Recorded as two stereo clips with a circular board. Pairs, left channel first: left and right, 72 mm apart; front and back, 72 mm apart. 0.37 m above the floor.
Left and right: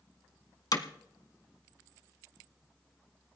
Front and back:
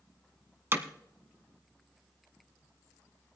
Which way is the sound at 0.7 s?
125° left.